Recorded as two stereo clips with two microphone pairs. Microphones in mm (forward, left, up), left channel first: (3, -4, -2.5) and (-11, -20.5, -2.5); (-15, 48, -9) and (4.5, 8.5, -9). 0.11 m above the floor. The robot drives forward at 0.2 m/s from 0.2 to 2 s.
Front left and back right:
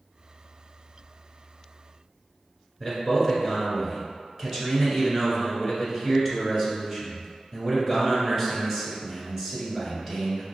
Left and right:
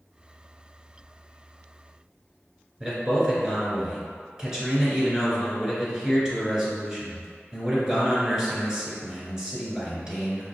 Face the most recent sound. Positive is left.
turn(degrees=-130)